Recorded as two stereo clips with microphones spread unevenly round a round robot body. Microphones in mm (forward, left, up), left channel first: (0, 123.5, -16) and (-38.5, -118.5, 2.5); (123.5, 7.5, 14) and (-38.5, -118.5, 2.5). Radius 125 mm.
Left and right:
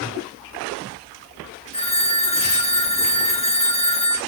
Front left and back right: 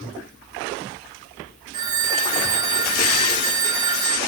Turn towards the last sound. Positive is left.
turn(degrees=145)